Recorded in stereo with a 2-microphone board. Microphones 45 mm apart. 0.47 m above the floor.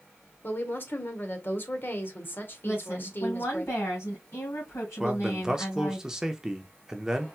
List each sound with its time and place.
0.4 s a woman speaking: 50° left (ahead or behind), 1.5 m
2.6 s a woman speaking: 70° left (ahead or behind), 3 m
5.0 s a man speaking: 15° right (ahead or behind), 0.7 m